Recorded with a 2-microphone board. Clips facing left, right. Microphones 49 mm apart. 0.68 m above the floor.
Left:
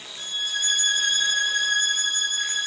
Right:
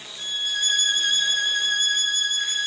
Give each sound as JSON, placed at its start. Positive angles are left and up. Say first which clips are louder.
{"t": 0.2, "sound": "a violin", "louder": "right 2 dB", "side_deg": 70, "distance_m": 4.0}